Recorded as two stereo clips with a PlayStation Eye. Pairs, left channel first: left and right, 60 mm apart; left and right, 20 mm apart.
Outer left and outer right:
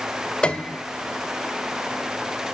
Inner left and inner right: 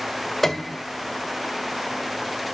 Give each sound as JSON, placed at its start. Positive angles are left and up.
{"t": 0.4, "sound": "a piano", "side_deg": 15, "distance_m": 0.9}